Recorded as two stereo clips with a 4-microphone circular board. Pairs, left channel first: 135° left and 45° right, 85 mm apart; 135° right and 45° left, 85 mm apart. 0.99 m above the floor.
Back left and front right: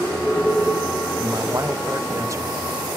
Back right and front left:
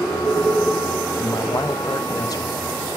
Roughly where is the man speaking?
Right.